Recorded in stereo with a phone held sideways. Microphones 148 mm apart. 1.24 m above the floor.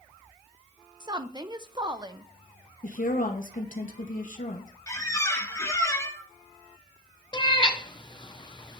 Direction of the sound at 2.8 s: 65° left (ahead or behind).